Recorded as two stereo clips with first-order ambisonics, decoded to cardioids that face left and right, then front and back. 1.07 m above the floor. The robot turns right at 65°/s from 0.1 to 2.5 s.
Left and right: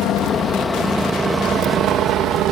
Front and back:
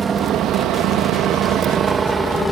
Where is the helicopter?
120° left; by 2.5 s 75° right.